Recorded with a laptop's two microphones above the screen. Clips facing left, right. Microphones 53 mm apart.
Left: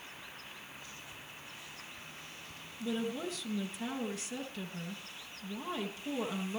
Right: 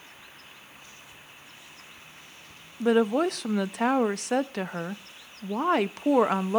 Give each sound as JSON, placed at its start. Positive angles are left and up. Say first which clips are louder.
{"t": 2.8, "sound": "a woman speaking", "louder": "right 14 dB", "side_deg": -70, "distance_m": 0.6}